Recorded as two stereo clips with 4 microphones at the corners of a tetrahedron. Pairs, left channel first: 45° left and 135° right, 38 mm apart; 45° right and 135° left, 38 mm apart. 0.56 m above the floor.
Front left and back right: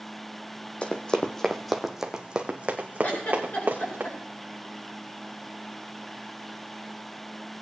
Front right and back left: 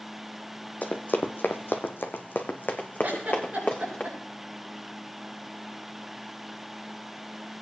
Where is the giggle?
85° left, 6 m.